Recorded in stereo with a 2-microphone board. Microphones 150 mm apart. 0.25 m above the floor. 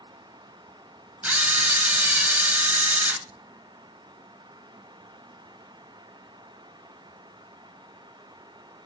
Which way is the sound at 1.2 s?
10° right (ahead or behind).